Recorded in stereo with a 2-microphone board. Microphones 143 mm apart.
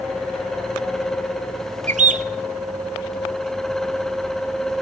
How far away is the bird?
About 0.7 m.